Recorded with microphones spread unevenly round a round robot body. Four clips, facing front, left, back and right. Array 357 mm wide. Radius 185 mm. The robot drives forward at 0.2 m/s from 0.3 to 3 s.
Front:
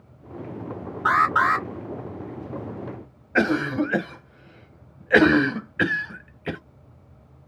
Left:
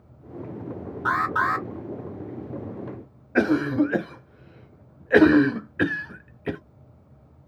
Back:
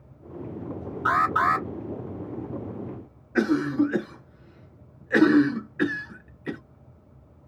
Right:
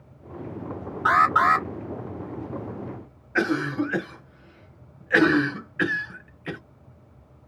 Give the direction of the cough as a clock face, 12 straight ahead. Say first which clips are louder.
Left 4 dB, even; 10 o'clock.